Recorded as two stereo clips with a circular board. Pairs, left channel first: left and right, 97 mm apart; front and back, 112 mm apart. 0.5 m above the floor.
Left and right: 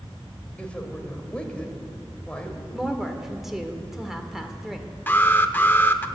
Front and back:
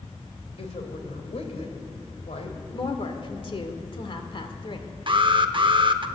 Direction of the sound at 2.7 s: 5° right.